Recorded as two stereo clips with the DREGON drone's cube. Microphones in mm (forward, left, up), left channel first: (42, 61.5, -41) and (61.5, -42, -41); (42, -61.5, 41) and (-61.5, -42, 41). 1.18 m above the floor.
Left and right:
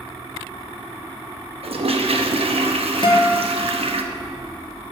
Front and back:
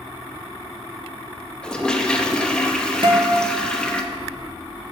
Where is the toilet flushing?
95° right, 0.8 m.